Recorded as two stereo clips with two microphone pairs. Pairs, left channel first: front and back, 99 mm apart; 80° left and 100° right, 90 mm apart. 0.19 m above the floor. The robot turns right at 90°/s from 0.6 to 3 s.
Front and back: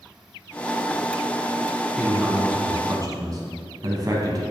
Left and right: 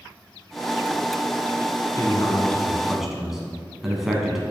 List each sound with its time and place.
2.0 s a man speaking: 85° left, 1.3 m; by 4.4 s 175° left, 1.3 m